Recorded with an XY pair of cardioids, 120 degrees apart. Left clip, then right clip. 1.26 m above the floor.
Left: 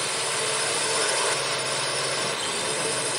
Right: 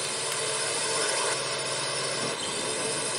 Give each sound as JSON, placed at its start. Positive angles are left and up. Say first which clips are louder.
{"t": 0.0, "sound": "a drone", "louder": "left 4 dB", "azimuth_deg": 15}